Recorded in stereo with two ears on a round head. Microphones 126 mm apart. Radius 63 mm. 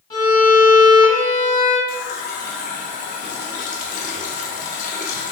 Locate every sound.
0.1 s a violin: 30° left (ahead or behind), 1.9 m
1.9 s a running tap: 60° left (ahead or behind), 0.6 m